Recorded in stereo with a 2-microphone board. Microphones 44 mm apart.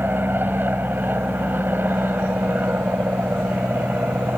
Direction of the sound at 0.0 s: 50° right (ahead or behind).